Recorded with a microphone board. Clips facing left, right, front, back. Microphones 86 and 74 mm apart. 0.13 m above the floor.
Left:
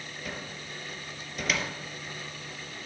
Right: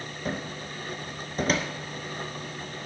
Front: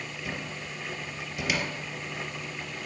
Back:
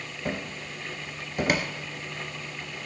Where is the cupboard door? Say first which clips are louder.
Right 8 dB, back 6 dB; 140° right, 1.7 m.